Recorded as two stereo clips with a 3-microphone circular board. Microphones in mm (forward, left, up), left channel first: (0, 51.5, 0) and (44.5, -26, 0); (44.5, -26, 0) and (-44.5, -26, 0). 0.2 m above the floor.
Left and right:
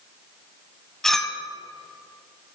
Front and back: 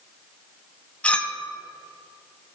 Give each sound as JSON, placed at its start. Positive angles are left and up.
{"t": 1.0, "sound": "a clink", "azimuth_deg": 40, "distance_m": 0.7}